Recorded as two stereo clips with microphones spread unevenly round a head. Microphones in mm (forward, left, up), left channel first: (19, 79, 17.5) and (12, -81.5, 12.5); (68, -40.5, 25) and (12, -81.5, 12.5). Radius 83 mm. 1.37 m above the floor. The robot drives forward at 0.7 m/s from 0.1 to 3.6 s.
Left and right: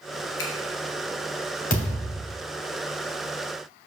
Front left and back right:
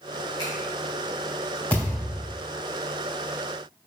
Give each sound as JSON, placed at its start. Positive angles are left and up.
{"t": 0.4, "sound": "a finger snap", "azimuth_deg": 95, "distance_m": 1.4}
{"t": 1.7, "sound": "a thud", "azimuth_deg": 135, "distance_m": 2.5}